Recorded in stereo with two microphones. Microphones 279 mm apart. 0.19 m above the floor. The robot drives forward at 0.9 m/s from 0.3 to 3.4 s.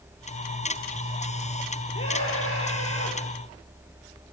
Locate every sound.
1.9 s a scream: 50° left (ahead or behind), 5 m; by 3.2 s 60° left (ahead or behind), 4.5 m